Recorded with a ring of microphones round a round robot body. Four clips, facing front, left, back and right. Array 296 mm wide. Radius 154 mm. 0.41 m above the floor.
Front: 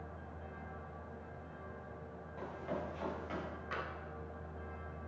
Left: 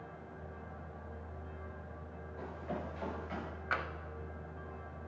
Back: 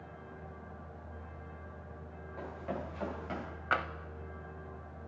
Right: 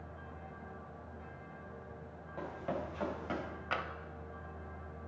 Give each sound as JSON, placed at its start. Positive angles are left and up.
{"t": 2.4, "sound": "running footsteps", "azimuth_deg": -110, "distance_m": 6.5}
{"t": 3.7, "sound": "tapping", "azimuth_deg": -170, "distance_m": 0.6}